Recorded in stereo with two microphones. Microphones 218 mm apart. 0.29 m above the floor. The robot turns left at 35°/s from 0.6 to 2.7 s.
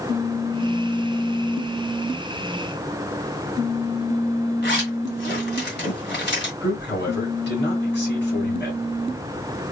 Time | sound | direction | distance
4.6 | a zipper | 50° left (ahead or behind) | 1.9 m
6.6 | a man speaking | 50° left (ahead or behind) | 2.5 m